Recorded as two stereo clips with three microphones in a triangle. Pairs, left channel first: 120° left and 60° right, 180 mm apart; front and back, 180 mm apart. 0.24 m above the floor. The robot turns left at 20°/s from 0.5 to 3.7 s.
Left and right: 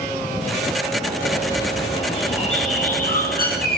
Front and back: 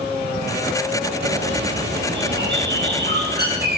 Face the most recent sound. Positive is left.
turn(degrees=150)